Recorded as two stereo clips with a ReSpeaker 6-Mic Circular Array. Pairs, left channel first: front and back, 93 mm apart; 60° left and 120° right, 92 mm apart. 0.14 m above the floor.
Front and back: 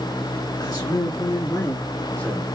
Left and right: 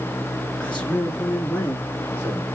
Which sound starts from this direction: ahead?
A man speaking, at 0.6 s.